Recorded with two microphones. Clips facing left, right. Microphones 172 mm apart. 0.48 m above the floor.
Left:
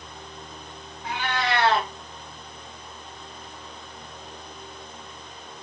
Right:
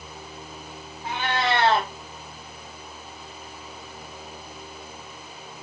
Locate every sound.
1.0 s a cat meowing: 25° right (ahead or behind), 1.3 m